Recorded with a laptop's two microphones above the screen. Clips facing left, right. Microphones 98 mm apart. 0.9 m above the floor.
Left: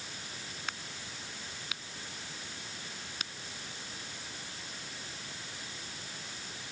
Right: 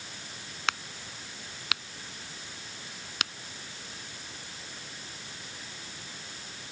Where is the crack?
90° right.